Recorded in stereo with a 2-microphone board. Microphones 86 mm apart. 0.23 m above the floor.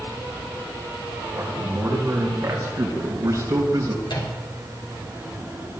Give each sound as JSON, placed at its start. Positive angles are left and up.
{"t": 1.4, "sound": "a man speaking", "side_deg": -30, "distance_m": 5.0}
{"t": 4.0, "sound": "a microwave", "side_deg": 65, "distance_m": 3.5}